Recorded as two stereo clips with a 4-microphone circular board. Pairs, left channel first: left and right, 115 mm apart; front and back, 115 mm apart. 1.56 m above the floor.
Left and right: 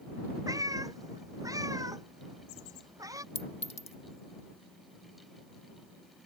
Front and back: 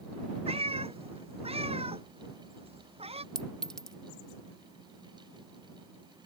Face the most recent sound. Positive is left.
turn(degrees=85)